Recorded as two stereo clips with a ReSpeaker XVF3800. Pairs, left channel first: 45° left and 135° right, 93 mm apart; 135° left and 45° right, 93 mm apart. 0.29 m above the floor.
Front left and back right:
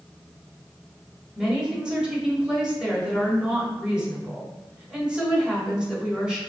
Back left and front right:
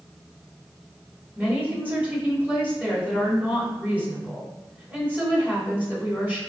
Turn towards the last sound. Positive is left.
turn(degrees=-70)